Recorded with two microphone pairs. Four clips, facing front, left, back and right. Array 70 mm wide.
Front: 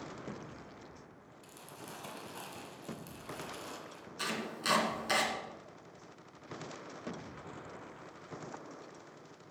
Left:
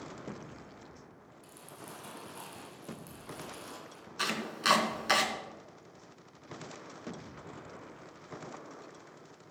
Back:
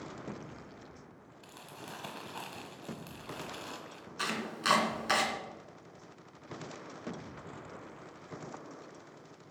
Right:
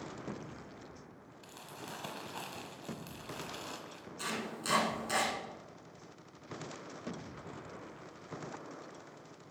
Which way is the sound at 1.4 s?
150° right.